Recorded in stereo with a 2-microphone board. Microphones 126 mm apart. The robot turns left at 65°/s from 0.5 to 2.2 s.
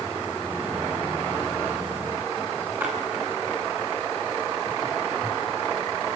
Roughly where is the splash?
Centre.